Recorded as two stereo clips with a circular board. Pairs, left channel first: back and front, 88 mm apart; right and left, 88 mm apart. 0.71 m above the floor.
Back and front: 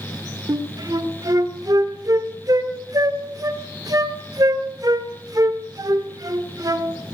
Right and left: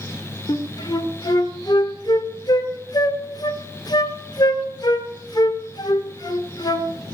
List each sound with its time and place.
0.5 s a flute: 50° right, 1.0 m